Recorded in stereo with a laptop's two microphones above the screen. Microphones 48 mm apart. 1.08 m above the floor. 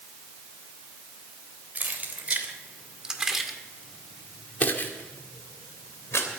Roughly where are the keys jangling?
Right.